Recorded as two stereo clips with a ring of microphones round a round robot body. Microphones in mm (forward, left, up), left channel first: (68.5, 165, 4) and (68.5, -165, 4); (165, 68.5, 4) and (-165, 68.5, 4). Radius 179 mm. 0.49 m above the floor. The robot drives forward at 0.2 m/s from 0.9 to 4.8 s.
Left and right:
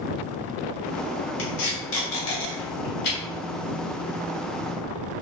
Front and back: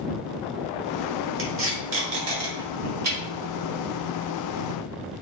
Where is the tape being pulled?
135° left, 1.1 m; by 3.2 s 150° left, 1.4 m.